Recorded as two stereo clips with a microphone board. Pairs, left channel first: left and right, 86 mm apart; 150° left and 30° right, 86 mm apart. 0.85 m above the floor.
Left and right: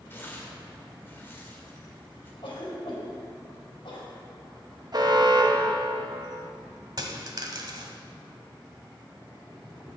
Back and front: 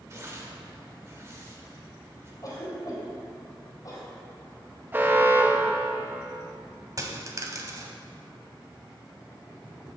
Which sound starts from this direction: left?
A cough, at 2.4 s.